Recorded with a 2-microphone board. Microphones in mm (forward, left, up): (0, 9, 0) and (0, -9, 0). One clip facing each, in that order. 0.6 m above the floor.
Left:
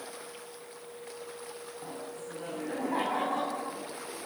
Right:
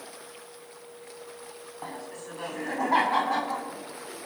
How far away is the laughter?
About 6 m.